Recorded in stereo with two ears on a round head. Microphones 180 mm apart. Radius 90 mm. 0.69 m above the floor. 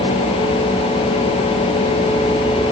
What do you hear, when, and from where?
Only background noise.